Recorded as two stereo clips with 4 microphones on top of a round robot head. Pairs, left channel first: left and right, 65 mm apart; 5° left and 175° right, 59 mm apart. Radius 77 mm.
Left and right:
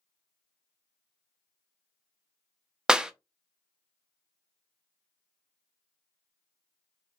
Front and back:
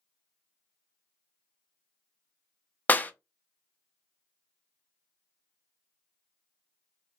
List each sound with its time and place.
2.9 s a clap: 20° right, 0.5 m